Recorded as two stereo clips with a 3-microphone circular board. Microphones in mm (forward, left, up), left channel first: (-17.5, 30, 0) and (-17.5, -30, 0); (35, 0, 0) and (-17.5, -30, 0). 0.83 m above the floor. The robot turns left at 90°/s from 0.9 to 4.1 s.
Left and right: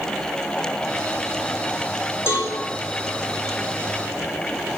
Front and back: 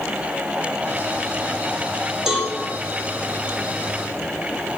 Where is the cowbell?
130° left, 1.7 m; by 2.5 s 110° left, 1.7 m.